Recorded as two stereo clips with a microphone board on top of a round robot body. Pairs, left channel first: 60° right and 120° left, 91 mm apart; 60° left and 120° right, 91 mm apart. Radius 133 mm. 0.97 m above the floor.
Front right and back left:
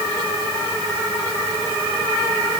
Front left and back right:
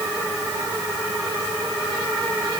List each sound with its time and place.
Only background noise.